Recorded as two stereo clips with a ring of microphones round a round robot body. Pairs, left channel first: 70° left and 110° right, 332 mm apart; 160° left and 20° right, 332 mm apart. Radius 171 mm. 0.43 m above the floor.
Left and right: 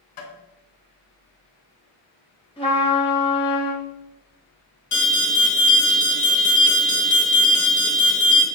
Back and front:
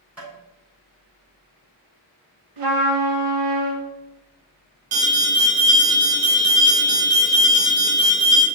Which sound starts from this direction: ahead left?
Tapping, at 0.2 s.